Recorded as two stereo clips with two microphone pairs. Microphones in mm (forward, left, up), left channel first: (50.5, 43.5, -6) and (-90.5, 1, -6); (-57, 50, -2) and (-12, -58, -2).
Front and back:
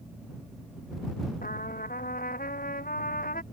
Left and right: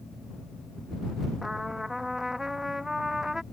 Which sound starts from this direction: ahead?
A trumpet, at 1.4 s.